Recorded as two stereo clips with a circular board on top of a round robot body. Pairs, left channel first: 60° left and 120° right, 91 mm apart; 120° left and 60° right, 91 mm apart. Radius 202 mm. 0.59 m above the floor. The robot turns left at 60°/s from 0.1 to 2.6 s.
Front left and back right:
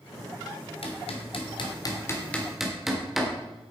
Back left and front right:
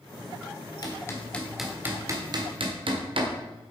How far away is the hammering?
About 1.4 m.